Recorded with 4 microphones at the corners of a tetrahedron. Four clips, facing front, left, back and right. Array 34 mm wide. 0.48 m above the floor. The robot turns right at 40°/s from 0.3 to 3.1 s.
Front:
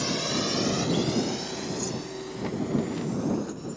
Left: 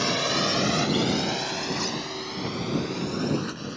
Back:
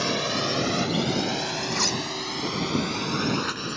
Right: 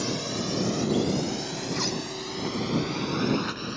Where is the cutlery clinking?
175° left; by 2.0 s 175° right.